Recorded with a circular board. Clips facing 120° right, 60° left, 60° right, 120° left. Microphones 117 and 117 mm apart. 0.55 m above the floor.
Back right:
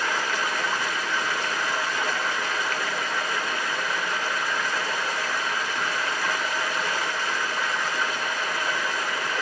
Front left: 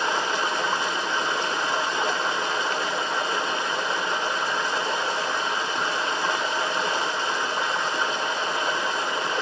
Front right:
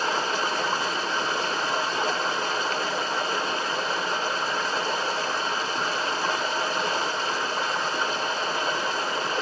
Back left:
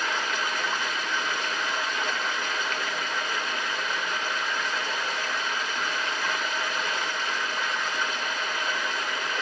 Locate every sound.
0.0 s running water: 5° right, 1.0 m